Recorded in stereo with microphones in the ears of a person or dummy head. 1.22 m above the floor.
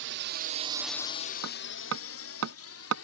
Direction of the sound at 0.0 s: 60° right (ahead or behind).